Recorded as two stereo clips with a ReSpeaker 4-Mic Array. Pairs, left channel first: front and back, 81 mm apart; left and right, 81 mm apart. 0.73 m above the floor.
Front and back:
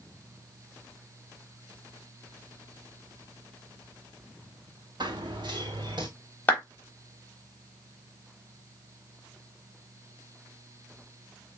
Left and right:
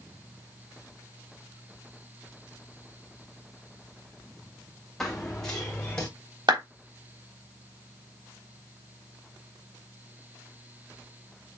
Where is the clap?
70° right, 3.5 m.